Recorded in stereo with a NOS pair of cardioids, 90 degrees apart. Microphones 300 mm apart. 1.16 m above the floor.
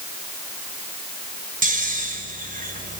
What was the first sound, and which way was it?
Snoring, 25° right.